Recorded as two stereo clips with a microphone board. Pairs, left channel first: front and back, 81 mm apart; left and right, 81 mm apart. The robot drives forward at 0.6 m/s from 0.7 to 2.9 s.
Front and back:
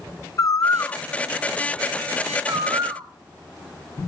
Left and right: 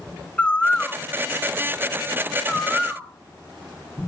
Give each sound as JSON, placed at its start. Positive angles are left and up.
{"t": 0.4, "sound": "a bird", "azimuth_deg": 20, "distance_m": 0.7}